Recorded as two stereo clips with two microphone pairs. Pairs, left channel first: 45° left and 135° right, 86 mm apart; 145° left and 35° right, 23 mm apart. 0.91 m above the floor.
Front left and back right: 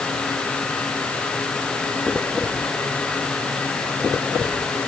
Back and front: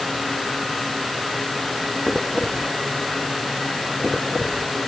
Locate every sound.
Only background noise.